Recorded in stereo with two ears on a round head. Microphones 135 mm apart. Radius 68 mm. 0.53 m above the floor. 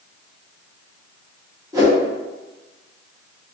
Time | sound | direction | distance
1.7 | a whoosh | 20° right (ahead or behind) | 1.0 m